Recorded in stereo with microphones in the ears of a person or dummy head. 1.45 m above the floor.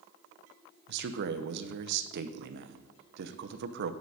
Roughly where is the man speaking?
Right.